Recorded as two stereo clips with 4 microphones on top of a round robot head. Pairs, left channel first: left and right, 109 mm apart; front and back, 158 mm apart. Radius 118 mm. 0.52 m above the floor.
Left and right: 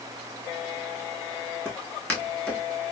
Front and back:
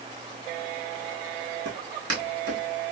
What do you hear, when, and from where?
1.6 s footsteps: 170° left, 2.5 m